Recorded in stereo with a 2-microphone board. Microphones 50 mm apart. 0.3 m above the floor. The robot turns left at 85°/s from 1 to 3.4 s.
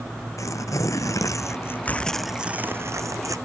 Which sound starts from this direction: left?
Tearing paper, at 0.4 s.